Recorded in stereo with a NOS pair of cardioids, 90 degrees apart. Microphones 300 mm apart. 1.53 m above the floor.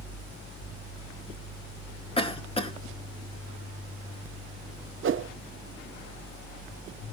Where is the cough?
20° left, 2.5 m.